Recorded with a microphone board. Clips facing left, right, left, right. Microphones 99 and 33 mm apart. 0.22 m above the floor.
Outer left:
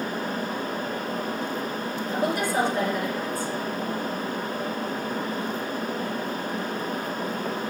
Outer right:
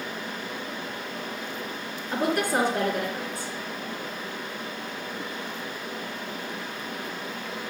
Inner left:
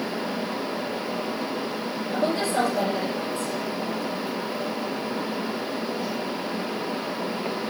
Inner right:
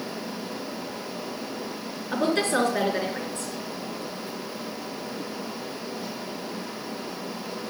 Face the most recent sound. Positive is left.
turn(degrees=-55)  # may be behind; listen again after turning